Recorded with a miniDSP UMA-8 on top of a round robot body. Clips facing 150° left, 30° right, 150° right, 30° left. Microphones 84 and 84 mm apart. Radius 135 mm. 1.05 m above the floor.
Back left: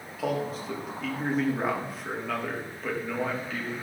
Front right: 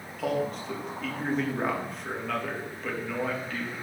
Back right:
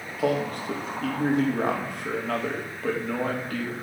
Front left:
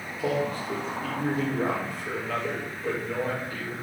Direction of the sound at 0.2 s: 125° right.